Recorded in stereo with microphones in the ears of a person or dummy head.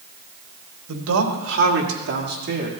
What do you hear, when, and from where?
0.9 s a man speaking: 75° right (ahead or behind), 2 m; by 2.7 s 45° right (ahead or behind), 2.5 m